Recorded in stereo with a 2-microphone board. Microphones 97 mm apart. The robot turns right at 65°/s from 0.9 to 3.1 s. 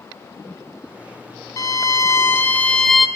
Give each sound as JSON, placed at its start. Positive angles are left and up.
{"t": 1.6, "sound": "a violin", "azimuth_deg": 85, "distance_m": 0.9}